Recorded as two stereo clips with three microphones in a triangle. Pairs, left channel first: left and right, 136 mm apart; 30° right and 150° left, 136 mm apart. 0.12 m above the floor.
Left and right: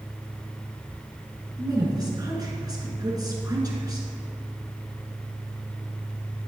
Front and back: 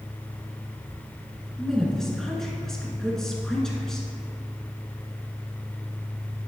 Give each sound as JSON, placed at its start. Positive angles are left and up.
{"t": 1.6, "sound": "a woman speaking", "azimuth_deg": -115, "distance_m": 1.7}